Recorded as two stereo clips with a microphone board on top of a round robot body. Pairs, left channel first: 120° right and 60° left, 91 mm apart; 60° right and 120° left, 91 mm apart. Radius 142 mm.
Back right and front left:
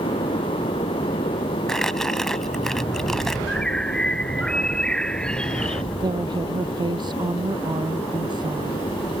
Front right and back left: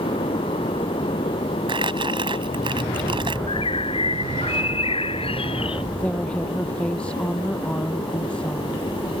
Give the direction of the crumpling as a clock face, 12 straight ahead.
7 o'clock.